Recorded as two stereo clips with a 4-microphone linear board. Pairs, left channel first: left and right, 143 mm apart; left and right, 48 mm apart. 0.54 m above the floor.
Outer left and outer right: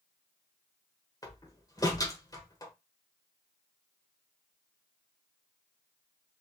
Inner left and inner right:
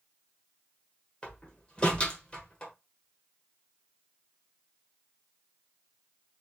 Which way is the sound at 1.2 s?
25° left (ahead or behind).